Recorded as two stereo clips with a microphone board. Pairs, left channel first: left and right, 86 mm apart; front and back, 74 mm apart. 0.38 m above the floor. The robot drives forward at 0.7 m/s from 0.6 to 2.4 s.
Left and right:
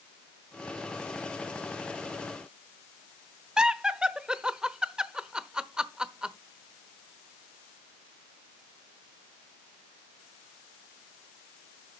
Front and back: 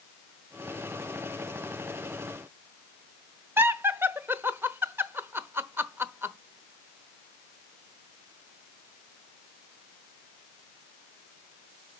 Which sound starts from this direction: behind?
Laughter, at 3.6 s.